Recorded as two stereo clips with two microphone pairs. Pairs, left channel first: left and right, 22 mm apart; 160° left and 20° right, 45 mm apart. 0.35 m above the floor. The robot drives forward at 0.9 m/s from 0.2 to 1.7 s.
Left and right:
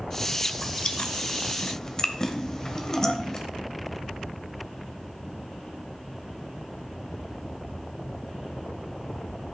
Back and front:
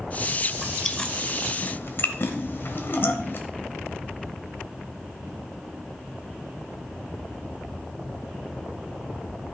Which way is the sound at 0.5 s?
55° left.